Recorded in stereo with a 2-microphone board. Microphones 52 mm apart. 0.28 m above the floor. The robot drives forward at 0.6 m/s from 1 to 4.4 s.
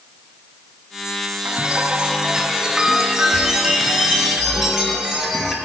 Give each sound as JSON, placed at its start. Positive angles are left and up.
{"t": 1.4, "sound": "a chime", "side_deg": -30, "distance_m": 0.5}